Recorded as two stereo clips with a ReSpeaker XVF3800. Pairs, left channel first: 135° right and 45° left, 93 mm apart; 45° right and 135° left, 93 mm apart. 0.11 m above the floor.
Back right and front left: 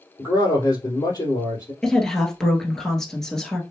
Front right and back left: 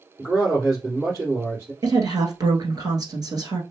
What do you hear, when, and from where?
0.2 s a man speaking: 175° right, 2.5 m
1.8 s a woman speaking: 140° left, 1.4 m